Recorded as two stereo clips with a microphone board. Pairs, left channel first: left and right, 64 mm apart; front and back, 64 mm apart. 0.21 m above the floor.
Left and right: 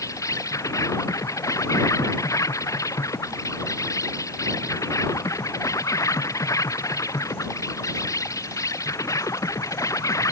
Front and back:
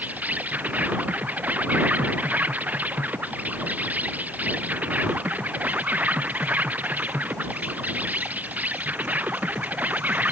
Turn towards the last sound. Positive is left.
turn(degrees=115)